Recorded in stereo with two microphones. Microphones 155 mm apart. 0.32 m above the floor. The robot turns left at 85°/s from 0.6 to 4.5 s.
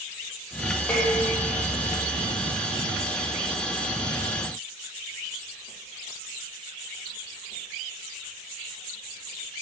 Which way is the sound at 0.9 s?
10° left.